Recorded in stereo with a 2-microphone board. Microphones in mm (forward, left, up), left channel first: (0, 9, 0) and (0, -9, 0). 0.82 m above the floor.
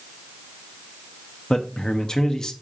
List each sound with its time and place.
1.5 s a man speaking: 35° left (ahead or behind), 1.3 m